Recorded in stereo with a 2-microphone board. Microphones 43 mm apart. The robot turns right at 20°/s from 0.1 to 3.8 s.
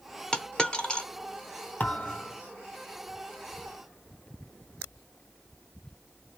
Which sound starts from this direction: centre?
A dropped coin, at 0.3 s.